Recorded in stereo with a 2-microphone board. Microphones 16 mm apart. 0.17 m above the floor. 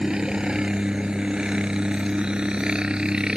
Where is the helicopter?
55° right (ahead or behind); by 3.4 s 60° right (ahead or behind).